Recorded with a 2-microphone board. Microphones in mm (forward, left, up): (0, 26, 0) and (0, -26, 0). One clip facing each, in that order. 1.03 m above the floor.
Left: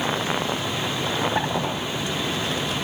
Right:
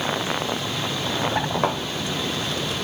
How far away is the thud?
About 2 m.